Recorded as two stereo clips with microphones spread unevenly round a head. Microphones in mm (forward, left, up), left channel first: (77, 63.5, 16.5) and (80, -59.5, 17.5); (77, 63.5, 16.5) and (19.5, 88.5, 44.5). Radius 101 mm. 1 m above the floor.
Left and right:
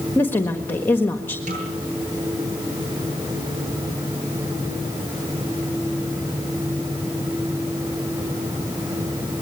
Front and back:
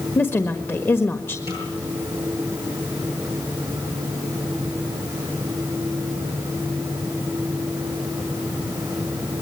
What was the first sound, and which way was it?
A woman speaking, 20° left.